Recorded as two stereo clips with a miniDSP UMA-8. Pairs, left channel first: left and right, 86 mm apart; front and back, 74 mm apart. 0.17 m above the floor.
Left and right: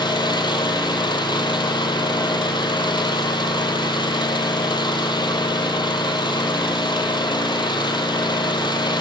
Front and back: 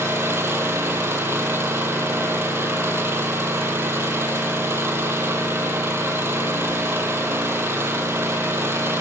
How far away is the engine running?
About 2 m.